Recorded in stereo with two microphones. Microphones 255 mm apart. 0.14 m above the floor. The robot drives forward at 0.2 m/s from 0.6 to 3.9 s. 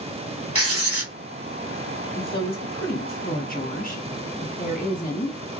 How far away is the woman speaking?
About 2 m.